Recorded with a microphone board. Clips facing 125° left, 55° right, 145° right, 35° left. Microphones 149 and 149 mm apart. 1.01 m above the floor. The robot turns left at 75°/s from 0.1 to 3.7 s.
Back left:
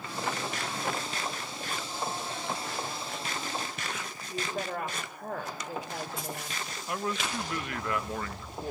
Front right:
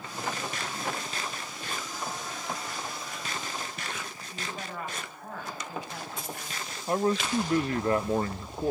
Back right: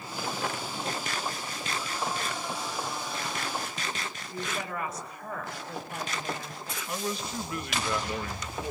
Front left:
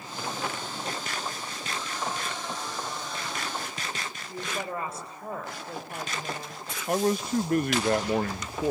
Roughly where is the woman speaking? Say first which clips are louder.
Back left 6 dB, front left 2 dB; left.